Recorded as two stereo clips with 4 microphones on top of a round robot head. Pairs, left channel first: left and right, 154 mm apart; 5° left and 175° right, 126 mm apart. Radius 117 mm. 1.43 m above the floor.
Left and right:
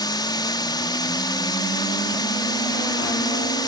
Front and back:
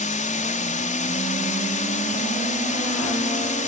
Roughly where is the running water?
Ahead left.